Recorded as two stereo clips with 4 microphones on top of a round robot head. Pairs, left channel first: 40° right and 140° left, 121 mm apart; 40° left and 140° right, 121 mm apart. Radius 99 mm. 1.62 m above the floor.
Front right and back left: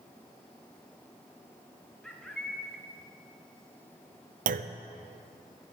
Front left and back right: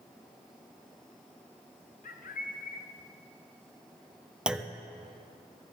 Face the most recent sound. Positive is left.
turn(degrees=140)